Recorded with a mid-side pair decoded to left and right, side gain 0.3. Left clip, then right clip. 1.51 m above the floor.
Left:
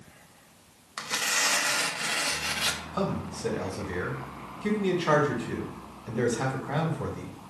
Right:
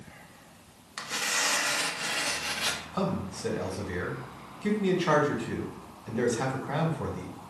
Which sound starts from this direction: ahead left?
Tearing paper, at 1.0 s.